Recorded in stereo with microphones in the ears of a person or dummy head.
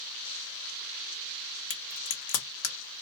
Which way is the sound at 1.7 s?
65° left (ahead or behind).